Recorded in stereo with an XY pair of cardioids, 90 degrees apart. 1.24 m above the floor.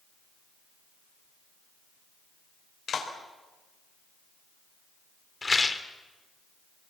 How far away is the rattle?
About 2 m.